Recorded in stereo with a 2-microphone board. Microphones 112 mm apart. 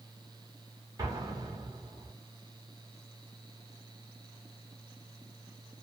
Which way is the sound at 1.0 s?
35° right (ahead or behind).